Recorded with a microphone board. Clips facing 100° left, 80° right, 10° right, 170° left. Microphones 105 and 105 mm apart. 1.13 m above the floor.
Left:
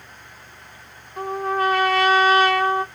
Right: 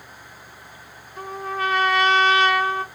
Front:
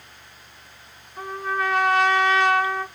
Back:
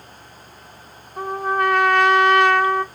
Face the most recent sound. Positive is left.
turn(degrees=140)